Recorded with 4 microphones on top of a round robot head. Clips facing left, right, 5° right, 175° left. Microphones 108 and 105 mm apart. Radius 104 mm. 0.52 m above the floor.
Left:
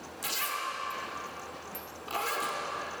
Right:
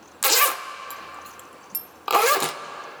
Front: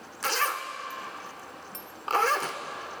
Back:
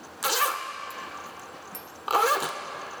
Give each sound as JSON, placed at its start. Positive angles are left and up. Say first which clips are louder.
{"t": 0.2, "sound": "a zipper", "louder": "right 12 dB, back 2 dB", "azimuth_deg": -105, "distance_m": 0.6}